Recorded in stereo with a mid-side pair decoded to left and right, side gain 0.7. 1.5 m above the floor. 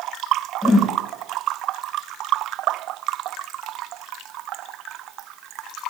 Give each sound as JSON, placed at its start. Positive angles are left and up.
{"t": 0.6, "sound": "a whoosh", "azimuth_deg": 5, "distance_m": 6.5}